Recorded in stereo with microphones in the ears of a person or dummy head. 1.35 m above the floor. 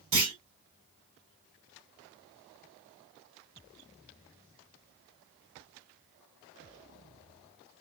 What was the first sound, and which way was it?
A clunk, 25° right (ahead or behind).